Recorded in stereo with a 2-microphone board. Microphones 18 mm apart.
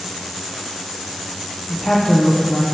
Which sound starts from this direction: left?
A woman speaking, at 1.7 s.